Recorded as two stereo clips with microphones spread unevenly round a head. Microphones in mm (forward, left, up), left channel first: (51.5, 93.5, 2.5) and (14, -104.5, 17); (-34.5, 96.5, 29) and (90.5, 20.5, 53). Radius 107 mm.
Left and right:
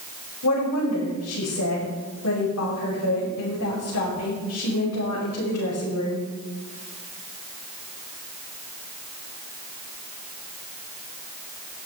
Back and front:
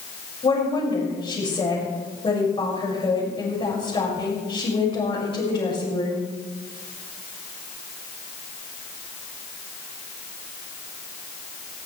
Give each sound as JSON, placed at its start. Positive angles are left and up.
{"t": 0.4, "sound": "a woman speaking", "azimuth_deg": 95, "distance_m": 6.0}